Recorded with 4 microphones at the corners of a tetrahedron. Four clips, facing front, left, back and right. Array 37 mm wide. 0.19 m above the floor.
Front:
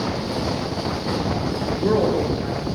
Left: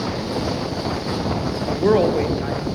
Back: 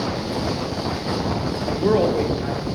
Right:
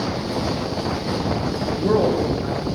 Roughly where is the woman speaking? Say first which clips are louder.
Left 2 dB, back 1 dB; left.